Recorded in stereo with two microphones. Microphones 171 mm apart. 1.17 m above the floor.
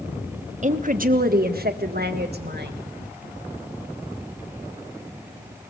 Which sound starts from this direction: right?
A woman speaking, at 0.6 s.